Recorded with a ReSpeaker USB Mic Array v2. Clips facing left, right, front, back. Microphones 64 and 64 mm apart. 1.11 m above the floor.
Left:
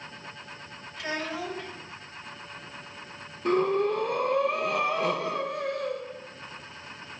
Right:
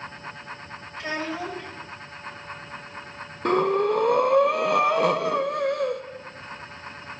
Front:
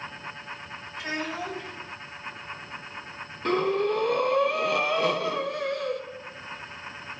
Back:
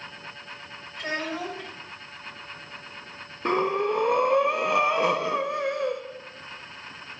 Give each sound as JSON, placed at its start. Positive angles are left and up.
{"t": 1.0, "sound": "a child speaking", "azimuth_deg": -145, "distance_m": 5.0}
{"t": 3.5, "sound": "breathing", "azimuth_deg": -115, "distance_m": 1.0}